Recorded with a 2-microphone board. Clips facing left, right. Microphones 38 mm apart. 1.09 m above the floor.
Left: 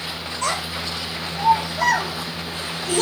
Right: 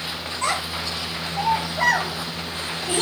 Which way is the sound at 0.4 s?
25° right (ahead or behind).